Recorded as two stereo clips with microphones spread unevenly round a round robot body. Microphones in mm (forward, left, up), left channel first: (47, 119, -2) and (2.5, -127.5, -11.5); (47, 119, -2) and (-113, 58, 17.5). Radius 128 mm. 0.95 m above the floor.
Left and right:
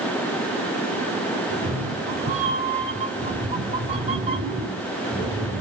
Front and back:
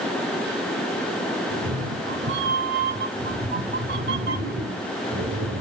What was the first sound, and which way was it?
A cat meowing, 165° right.